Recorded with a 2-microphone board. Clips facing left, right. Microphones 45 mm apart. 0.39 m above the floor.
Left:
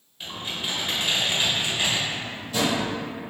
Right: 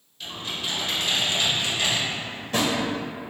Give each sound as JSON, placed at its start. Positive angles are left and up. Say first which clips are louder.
{"t": 0.2, "sound": "typing on a keyboard", "louder": "even", "side_deg": 20, "distance_m": 1.1}
{"t": 2.1, "sound": "a drawer", "louder": "right 2 dB", "side_deg": -55, "distance_m": 0.9}